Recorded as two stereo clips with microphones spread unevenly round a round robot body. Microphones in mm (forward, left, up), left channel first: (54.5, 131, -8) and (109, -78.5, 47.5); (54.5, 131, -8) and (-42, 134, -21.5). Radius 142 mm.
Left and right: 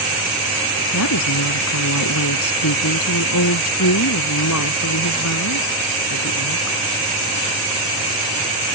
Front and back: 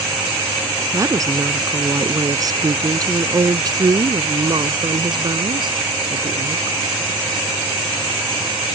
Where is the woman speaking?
120° left; by 6.8 s 140° left.